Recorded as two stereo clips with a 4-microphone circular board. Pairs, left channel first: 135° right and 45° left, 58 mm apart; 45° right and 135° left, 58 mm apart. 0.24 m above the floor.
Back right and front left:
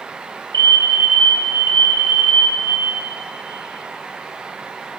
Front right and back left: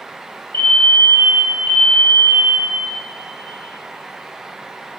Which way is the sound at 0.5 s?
105° right.